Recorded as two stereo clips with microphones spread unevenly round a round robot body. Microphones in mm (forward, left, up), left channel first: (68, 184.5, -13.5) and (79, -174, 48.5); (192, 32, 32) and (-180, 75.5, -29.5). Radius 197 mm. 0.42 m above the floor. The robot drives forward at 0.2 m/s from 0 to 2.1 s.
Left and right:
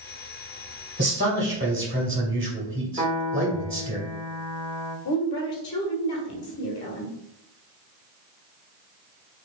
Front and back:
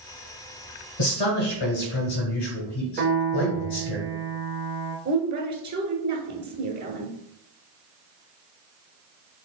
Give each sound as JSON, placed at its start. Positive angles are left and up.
{"t": 1.0, "sound": "a man speaking", "azimuth_deg": -25, "distance_m": 2.0}
{"t": 3.0, "sound": "a piano", "azimuth_deg": -165, "distance_m": 1.0}
{"t": 5.0, "sound": "a woman speaking", "azimuth_deg": 130, "distance_m": 1.3}